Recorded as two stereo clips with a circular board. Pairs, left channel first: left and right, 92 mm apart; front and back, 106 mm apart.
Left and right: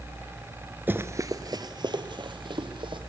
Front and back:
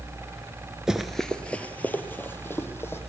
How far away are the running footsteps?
About 0.9 m.